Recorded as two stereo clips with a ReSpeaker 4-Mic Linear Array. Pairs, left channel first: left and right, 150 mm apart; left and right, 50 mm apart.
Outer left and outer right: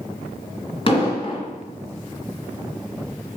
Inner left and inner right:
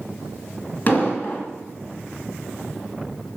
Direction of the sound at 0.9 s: 35° left (ahead or behind).